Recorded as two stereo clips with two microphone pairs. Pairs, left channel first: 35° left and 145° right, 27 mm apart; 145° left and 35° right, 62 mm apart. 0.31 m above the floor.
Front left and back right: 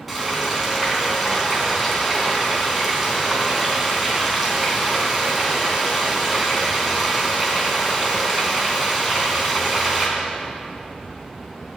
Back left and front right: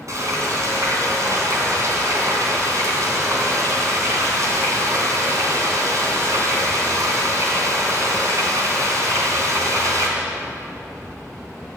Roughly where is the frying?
Ahead right.